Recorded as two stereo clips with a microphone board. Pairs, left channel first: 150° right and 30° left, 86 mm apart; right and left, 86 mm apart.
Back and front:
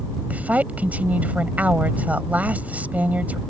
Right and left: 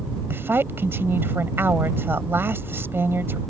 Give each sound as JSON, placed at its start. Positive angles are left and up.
{"t": 0.3, "sound": "a woman speaking", "azimuth_deg": 75}